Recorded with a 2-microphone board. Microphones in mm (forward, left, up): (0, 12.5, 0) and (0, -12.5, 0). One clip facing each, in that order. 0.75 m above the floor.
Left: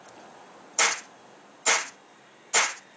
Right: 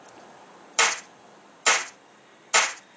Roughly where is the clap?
Right.